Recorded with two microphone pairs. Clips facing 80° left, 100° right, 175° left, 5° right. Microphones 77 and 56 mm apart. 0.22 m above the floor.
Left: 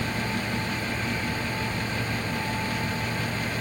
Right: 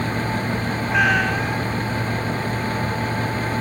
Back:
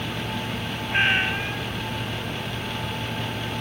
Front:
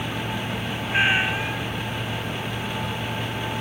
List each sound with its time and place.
0.9 s a cat meowing: 90° right